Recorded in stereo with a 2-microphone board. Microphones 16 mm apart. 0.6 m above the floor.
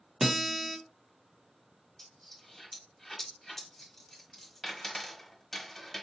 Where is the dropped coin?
15° left (ahead or behind), 1.2 m.